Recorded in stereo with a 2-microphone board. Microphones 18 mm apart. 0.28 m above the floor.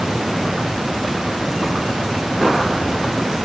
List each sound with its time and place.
Only background noise.